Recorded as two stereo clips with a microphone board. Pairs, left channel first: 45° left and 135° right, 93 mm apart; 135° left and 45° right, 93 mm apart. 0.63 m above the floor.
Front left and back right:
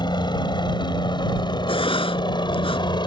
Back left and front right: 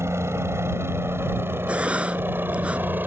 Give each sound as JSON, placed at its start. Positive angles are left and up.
{"t": 0.0, "sound": "a helicopter", "azimuth_deg": 15}
{"t": 1.7, "sound": "writing", "azimuth_deg": 35}